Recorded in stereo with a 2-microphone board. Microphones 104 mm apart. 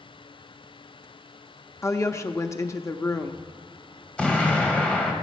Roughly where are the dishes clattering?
No dishes clattering in this recording.